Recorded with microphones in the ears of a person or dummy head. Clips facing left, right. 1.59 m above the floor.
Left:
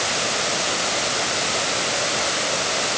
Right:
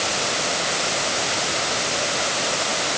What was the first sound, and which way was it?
Only background noise.